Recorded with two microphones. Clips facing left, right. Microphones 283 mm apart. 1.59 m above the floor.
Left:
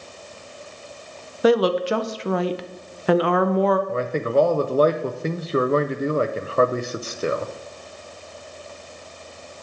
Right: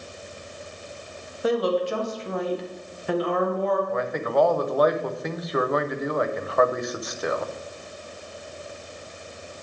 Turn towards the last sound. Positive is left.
turn(degrees=30)  # may be behind; listen again after turning